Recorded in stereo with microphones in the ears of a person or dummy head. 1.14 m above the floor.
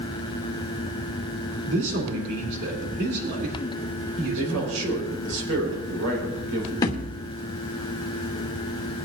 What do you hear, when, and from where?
1.7 s a man speaking: 60° right (ahead or behind), 3 m
4.4 s a man speaking: 85° right, 5 m
6.8 s a thud: 15° left (ahead or behind), 0.9 m